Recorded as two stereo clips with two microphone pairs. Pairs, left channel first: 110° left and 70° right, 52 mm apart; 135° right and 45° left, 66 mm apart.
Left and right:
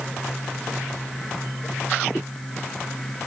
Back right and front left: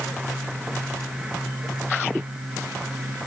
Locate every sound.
Only background noise.